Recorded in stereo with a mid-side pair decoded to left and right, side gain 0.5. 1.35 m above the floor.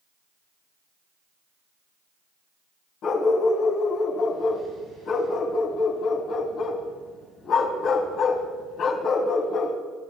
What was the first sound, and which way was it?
A dog barking, 65° left.